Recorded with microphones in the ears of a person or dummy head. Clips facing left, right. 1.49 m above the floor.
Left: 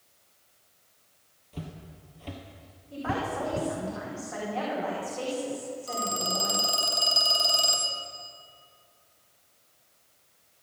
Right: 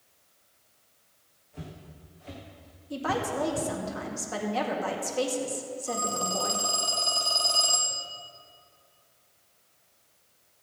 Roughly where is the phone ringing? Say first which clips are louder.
Right 3 dB; centre.